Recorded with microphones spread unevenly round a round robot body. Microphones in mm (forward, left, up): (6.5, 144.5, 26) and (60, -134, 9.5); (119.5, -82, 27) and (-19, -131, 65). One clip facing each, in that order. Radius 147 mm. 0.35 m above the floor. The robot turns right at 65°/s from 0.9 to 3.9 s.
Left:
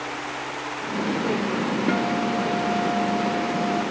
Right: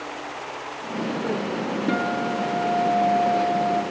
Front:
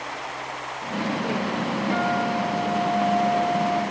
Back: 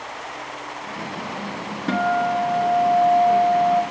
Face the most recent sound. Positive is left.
turn(degrees=-45)